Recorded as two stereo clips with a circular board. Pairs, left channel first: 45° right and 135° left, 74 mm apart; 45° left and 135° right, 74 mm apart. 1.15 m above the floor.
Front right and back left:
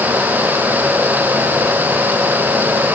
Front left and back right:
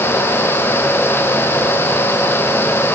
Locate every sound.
Only background noise.